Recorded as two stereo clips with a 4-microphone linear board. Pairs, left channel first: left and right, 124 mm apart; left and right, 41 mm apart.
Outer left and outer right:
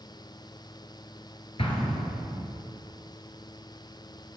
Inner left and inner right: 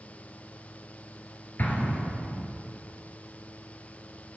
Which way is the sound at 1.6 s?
50° left (ahead or behind).